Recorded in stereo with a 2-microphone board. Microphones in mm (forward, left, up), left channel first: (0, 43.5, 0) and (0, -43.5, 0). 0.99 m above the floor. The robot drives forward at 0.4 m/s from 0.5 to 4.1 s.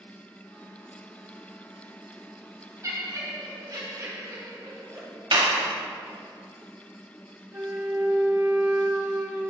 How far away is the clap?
About 1.0 m.